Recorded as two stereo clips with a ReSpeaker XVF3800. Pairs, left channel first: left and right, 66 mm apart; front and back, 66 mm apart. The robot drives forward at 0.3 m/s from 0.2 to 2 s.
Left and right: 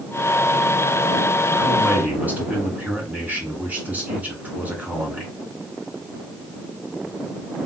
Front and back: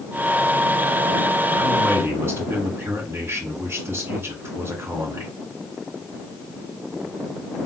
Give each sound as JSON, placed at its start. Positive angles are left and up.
{"t": 1.6, "sound": "a man speaking", "azimuth_deg": -145, "distance_m": 2.5}